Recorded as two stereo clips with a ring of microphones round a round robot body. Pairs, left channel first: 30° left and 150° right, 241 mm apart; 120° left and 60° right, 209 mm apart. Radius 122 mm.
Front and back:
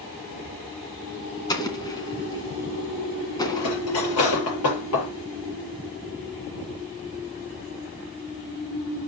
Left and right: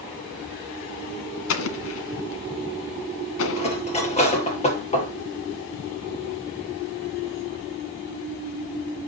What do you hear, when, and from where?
1.5 s an explosion: 105° left, 2.5 m
3.6 s cutlery clinking: 60° left, 8 m